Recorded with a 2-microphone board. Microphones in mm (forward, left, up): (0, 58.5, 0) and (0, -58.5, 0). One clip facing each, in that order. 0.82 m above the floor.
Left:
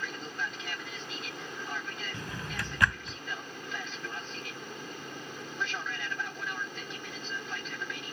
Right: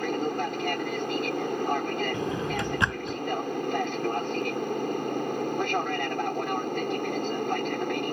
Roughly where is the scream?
No scream in this recording.